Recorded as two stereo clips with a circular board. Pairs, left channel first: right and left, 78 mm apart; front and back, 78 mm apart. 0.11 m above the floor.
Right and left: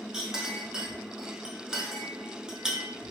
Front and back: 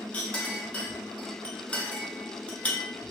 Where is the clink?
30° left, 0.7 m.